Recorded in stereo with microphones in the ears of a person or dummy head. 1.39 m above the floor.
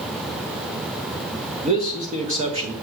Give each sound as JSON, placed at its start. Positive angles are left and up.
{"t": 1.6, "sound": "a man speaking", "side_deg": -35, "distance_m": 1.1}